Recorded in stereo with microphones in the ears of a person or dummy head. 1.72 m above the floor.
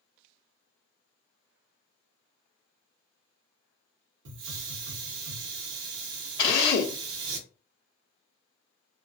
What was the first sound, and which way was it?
A hiss, 75° right (ahead or behind).